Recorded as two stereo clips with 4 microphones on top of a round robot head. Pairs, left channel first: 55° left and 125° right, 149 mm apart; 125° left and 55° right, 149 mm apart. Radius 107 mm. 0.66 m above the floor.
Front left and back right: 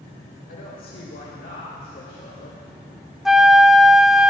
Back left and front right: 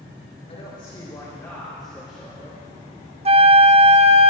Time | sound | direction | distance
0.5 | a woman speaking | 75° left | 3 m
3.2 | a flute | 35° right | 0.5 m